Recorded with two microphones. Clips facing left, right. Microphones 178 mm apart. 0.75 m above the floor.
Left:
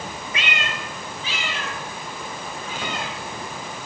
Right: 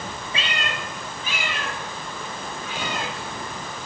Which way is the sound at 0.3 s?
30° right (ahead or behind).